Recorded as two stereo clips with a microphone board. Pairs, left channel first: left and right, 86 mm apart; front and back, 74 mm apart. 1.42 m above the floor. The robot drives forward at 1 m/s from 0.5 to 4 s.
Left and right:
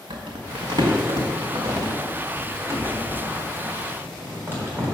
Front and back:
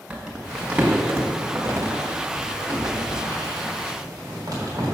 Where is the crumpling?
100° right, 1.8 m; by 4.8 s 155° right, 4 m.